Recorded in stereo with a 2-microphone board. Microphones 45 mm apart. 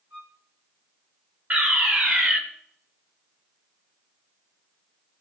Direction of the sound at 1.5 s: 40° right (ahead or behind).